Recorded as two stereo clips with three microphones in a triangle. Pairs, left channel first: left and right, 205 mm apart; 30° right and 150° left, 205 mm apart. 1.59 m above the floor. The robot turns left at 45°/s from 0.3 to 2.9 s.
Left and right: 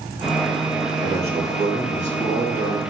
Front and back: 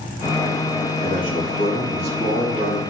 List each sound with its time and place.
1.0 s a man speaking: 20° right, 3.5 m; by 2.8 s 100° right, 3.5 m